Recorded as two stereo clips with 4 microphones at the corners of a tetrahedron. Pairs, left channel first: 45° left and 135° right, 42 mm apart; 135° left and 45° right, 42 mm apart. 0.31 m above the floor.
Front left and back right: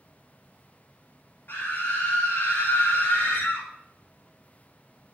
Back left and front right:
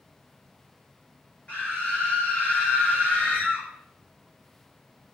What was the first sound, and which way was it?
A scream, 75° left.